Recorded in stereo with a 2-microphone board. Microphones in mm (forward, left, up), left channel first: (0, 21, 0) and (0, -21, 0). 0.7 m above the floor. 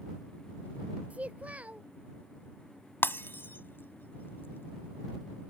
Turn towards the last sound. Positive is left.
turn(degrees=60)  # may be behind; listen again after turning